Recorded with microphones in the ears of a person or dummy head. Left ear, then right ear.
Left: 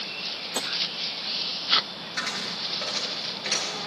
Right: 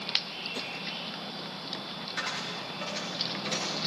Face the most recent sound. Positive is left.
turn(degrees=20)  # may be behind; listen again after turning